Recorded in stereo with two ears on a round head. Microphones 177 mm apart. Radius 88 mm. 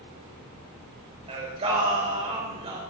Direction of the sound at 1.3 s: 30° right (ahead or behind).